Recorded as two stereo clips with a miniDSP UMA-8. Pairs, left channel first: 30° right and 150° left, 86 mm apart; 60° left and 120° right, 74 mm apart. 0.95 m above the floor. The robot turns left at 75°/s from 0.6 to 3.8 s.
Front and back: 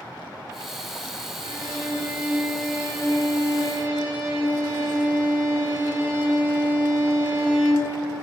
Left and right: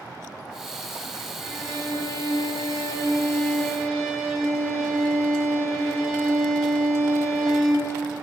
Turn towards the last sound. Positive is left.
turn(degrees=-40)